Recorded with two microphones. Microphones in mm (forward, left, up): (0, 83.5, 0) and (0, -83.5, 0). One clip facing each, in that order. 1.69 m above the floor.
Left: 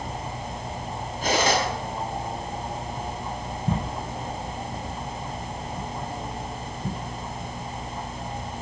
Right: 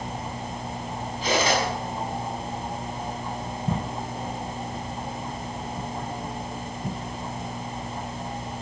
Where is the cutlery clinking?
50° left (ahead or behind), 8.5 m.